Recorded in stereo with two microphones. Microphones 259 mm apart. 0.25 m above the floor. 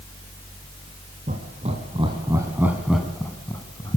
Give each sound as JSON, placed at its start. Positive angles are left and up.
{"t": 1.3, "sound": "laughter", "side_deg": -30, "distance_m": 2.5}